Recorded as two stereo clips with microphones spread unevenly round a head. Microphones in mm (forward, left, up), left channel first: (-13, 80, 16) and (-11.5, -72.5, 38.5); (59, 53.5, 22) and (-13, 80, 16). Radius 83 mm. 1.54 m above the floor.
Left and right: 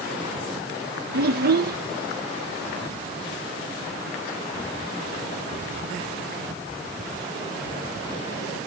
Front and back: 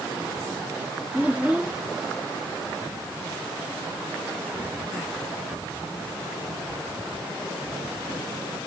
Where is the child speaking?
115° right.